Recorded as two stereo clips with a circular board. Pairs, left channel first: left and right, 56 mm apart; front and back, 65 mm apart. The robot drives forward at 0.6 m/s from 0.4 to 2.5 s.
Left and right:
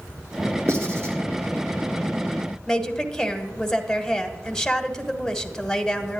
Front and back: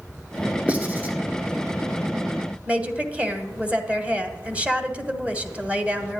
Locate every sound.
0.7 s writing: 115° right, 2 m; by 1.1 s 120° right, 2 m
2.7 s a woman speaking: 155° left, 1.1 m